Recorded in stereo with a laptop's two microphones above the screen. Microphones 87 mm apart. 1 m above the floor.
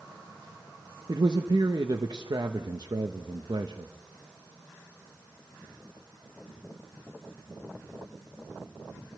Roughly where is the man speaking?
Right.